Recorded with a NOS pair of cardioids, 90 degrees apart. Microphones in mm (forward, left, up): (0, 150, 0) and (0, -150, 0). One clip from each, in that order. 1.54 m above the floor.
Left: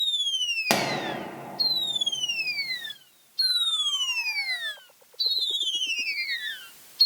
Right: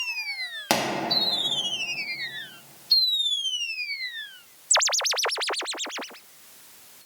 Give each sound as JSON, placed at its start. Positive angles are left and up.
{"t": 0.7, "sound": "a pop", "azimuth_deg": 0, "distance_m": 0.5}